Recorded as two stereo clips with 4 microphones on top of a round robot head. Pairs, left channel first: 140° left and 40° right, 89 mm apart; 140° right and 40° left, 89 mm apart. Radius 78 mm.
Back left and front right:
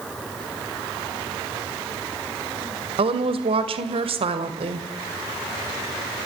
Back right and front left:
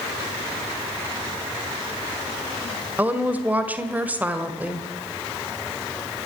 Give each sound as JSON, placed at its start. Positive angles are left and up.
{"t": 3.0, "sound": "a woman speaking", "azimuth_deg": -35, "distance_m": 2.0}